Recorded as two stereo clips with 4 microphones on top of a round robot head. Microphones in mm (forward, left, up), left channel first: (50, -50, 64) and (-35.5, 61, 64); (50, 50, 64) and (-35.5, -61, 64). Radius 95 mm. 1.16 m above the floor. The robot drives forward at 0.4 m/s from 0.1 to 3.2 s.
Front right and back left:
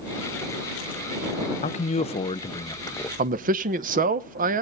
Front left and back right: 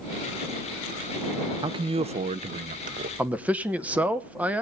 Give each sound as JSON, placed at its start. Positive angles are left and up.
{"t": 1.6, "sound": "a man speaking", "azimuth_deg": -75, "distance_m": 0.8}
{"t": 3.2, "sound": "a man speaking", "azimuth_deg": 150, "distance_m": 0.8}